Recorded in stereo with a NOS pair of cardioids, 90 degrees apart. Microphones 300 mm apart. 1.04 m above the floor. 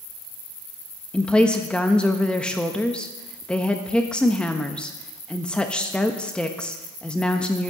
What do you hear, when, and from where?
1.1 s a woman speaking: 5° left, 1.1 m